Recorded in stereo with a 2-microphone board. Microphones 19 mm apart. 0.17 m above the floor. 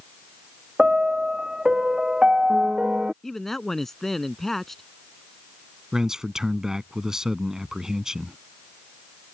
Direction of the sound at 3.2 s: 15° left (ahead or behind).